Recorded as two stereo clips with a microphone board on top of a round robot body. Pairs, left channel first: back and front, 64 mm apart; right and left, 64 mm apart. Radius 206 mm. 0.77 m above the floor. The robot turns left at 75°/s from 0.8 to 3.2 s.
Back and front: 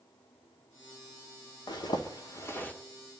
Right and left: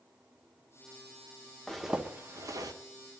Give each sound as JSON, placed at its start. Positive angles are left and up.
{"t": 1.7, "sound": "a zipper", "azimuth_deg": -170, "distance_m": 1.6}